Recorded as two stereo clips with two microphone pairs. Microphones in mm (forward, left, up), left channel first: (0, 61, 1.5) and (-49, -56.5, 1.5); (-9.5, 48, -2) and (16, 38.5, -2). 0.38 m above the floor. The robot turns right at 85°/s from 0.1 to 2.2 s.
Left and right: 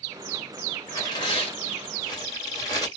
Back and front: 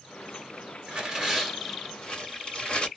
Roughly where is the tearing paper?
Ahead.